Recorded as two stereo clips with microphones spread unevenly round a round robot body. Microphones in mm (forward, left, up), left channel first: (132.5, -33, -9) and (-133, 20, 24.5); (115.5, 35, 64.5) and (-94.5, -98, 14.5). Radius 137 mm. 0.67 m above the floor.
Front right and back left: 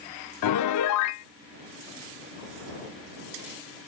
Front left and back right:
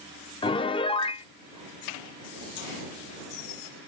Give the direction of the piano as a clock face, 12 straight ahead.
1 o'clock.